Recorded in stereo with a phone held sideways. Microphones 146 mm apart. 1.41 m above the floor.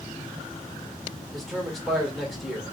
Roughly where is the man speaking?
Centre.